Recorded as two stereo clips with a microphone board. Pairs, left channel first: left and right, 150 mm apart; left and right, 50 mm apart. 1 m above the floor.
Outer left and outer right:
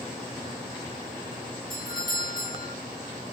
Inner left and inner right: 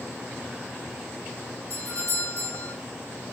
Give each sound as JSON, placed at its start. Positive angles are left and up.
{"t": 1.7, "sound": "a doorbell", "side_deg": 75, "distance_m": 7.0}